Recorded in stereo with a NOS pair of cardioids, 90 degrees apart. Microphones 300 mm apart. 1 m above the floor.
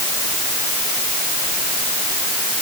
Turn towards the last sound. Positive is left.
No sound to turn to.